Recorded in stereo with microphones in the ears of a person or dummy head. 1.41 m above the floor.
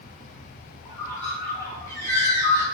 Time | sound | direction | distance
0.8 | a bird | 15° left (ahead or behind) | 1.0 m